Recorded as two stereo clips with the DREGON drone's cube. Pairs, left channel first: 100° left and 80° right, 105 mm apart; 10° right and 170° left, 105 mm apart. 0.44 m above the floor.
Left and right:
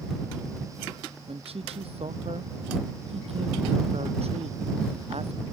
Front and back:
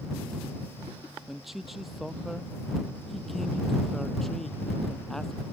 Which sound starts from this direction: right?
A man speaking, at 1.3 s.